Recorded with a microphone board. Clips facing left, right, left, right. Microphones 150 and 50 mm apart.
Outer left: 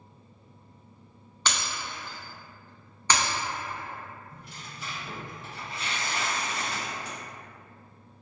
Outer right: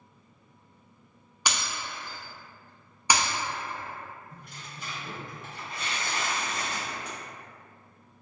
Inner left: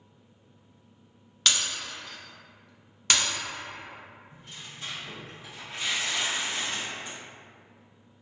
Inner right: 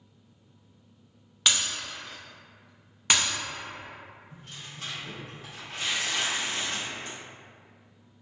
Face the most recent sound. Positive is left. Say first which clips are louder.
# outer left 1 dB, inner right 1 dB
turn(degrees=-55)  # may be behind; listen again after turning